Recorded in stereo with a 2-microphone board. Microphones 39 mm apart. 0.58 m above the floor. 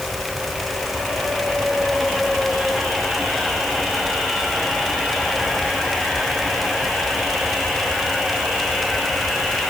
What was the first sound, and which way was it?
Only background noise.